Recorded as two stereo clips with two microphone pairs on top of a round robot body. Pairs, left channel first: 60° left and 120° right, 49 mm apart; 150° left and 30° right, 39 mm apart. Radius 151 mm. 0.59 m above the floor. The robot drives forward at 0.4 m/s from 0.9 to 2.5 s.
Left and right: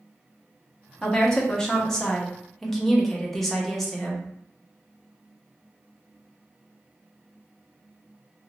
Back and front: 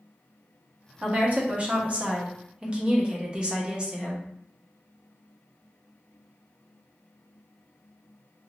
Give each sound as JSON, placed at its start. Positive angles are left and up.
{"t": 1.0, "sound": "a woman speaking", "azimuth_deg": -10, "distance_m": 1.6}